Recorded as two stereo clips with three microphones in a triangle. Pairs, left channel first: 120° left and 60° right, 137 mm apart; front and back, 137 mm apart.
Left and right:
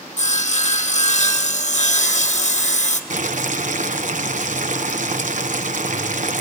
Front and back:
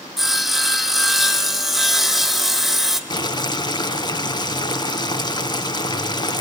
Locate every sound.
0.2 s sawing: 90° left, 1.9 m
3.1 s boiling: 55° right, 1.2 m